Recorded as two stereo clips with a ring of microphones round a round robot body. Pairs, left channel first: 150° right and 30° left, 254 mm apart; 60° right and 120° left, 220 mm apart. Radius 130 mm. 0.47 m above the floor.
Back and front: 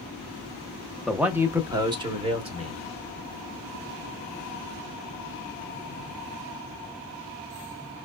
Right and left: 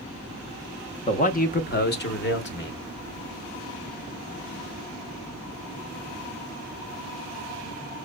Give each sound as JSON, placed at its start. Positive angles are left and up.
{"t": 1.1, "sound": "a man speaking", "azimuth_deg": -60, "distance_m": 0.7}